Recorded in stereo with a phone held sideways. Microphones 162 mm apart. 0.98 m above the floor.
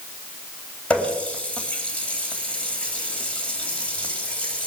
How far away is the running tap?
About 3 m.